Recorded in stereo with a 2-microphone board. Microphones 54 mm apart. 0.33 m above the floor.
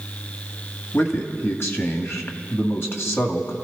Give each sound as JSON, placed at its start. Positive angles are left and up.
{"t": 0.9, "sound": "a man speaking", "side_deg": 55, "distance_m": 1.8}